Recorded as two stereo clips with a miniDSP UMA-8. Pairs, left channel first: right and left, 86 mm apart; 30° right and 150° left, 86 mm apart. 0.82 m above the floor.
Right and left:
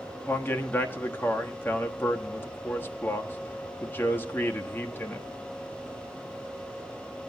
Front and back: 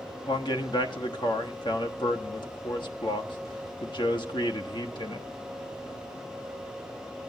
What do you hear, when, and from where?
0.3 s a man speaking: 25° right, 1.2 m